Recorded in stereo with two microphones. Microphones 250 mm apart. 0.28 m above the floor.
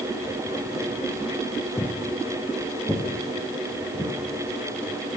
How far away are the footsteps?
About 1.1 m.